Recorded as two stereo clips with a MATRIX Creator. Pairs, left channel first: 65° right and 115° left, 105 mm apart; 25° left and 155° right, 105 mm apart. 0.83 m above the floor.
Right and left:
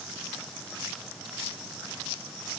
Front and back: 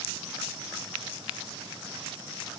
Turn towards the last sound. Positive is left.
No sound to turn to.